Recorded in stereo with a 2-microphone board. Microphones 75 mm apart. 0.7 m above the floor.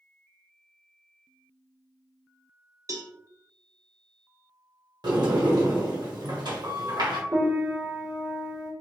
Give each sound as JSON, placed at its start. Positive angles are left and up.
{"t": 2.9, "sound": "a cowbell", "side_deg": -45, "distance_m": 0.5}
{"t": 5.0, "sound": "a sliding door", "side_deg": -80, "distance_m": 1.1}
{"t": 7.3, "sound": "a piano", "side_deg": -45, "distance_m": 1.3}